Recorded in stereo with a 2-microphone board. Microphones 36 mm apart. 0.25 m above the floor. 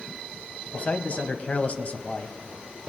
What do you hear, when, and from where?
0.7 s a man speaking: 40° left (ahead or behind), 1.2 m